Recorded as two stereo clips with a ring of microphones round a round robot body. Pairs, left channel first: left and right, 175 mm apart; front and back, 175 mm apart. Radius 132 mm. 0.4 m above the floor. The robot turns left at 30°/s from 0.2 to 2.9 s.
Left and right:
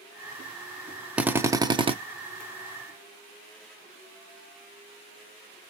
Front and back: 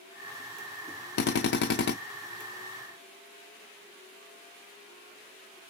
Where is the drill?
5° right, 0.6 m; by 1.9 s 30° right, 0.6 m.